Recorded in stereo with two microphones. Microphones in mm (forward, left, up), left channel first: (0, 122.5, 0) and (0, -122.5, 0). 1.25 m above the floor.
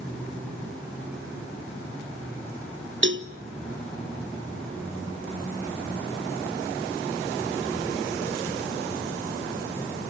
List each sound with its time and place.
3.0 s a cowbell: 50° right (ahead or behind), 0.8 m